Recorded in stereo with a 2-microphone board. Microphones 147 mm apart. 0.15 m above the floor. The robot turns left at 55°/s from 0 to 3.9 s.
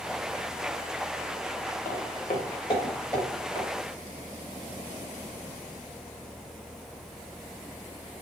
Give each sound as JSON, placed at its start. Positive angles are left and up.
{"t": 1.9, "sound": "footsteps", "side_deg": 75, "distance_m": 0.9}